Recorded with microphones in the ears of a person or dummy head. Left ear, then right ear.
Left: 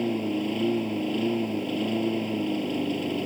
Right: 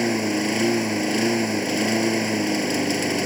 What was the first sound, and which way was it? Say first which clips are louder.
A lawn mower: right 5 dB; 60° right (ahead or behind).